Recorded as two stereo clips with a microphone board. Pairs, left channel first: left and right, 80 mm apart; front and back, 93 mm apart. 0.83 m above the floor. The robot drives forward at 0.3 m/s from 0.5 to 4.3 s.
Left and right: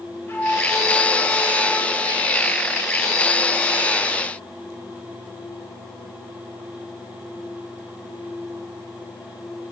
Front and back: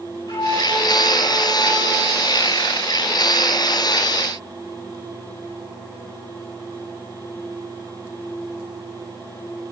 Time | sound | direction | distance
0.3 | a flute | 30° left | 5 m